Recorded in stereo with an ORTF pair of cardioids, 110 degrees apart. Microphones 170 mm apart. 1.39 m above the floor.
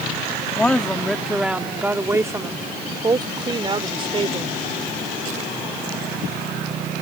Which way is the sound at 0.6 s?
10° left.